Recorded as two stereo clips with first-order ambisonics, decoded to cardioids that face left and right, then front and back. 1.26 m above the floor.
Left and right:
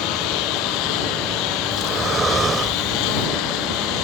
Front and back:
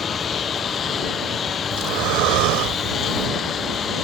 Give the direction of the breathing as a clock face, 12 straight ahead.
5 o'clock.